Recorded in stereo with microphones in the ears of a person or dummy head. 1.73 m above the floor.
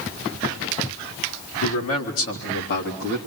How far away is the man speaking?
About 4 m.